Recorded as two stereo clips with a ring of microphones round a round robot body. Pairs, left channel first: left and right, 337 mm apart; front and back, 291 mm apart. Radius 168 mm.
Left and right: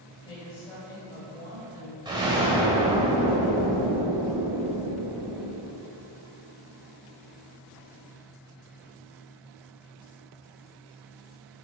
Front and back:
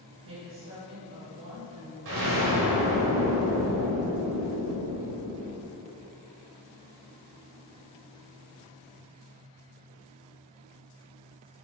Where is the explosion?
165° right, 1.4 m.